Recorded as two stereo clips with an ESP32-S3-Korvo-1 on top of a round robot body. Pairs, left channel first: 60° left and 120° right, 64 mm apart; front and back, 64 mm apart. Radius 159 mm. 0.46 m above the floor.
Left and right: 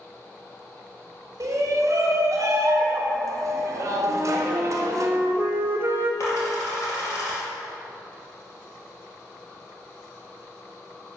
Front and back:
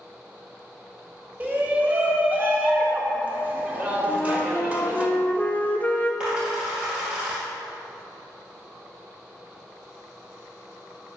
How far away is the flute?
About 0.6 m.